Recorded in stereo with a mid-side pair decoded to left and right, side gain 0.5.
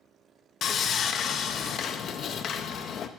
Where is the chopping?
No chopping in this recording.